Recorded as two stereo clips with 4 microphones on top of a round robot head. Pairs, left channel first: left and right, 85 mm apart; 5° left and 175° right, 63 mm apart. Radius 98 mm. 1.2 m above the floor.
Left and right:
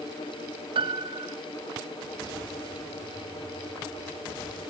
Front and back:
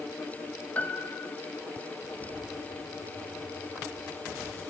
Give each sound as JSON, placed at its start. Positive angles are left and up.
{"t": 0.8, "sound": "a piano", "azimuth_deg": -70, "distance_m": 1.1}